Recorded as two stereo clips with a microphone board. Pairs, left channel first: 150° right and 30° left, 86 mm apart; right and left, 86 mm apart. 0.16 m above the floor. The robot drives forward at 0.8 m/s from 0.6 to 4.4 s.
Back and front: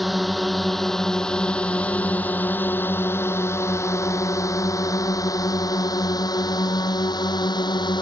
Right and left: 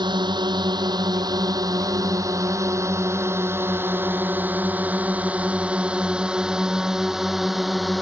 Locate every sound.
0.0 s a drone: 120° left; by 8.0 s straight behind